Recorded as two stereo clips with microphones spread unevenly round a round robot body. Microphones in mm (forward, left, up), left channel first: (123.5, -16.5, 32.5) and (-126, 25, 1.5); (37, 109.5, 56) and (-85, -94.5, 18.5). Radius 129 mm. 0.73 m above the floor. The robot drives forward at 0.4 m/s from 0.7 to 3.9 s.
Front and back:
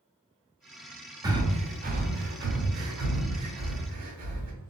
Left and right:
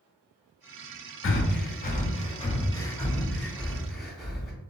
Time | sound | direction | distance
1.2 | breathing | 100° left | 0.7 m